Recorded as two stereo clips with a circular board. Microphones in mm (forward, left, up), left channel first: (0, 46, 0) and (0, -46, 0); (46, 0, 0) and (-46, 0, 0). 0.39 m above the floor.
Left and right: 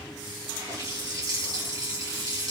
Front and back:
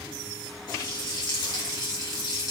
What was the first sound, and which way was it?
A running tap, 45° right.